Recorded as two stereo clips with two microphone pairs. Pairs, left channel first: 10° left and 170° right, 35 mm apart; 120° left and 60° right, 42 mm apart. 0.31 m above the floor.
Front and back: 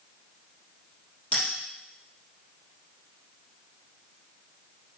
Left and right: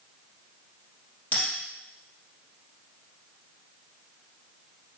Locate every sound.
1.3 s a bell: 65° left, 4 m